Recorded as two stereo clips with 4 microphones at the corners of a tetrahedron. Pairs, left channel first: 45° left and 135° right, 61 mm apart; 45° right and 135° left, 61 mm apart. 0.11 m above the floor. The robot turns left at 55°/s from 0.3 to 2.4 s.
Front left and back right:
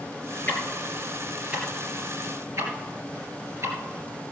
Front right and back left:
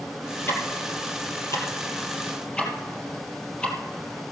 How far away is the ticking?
About 3 m.